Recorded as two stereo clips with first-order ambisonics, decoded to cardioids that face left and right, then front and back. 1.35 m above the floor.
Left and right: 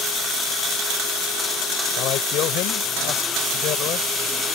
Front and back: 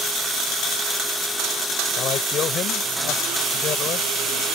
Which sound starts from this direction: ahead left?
A man speaking, at 2.0 s.